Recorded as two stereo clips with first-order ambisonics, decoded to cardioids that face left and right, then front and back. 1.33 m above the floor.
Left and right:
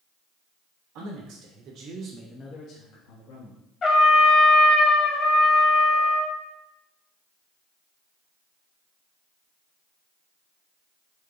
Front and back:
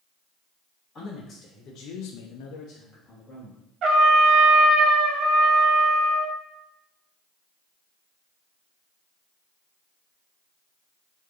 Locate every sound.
0.9 s a man speaking: 65° right, 1.8 m; by 3.6 s 75° left, 1.7 m
3.8 s a trumpet: 145° left, 0.8 m